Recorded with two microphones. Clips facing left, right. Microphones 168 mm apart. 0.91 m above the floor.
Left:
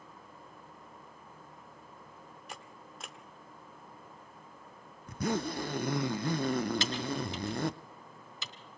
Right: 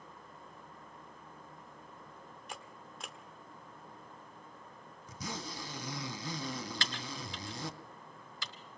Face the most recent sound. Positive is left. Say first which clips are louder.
# left 9 dB
turn(degrees=20)  # may be behind; listen again after turning